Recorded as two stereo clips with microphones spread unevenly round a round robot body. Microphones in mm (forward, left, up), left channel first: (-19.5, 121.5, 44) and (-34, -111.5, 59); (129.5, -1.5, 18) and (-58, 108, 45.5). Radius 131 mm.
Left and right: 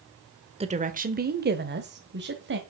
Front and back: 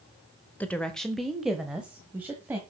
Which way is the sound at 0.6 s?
80° right.